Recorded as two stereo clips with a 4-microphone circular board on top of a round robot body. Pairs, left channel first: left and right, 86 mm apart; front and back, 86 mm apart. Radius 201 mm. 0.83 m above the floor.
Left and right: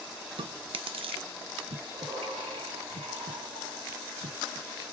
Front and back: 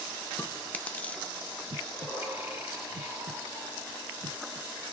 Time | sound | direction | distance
0.4 | chewing | 75° right | 0.6 m
1.7 | breathing | 115° right | 2.0 m